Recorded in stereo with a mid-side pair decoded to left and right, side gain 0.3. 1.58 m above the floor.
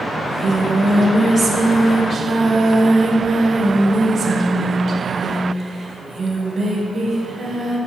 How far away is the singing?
About 1.8 m.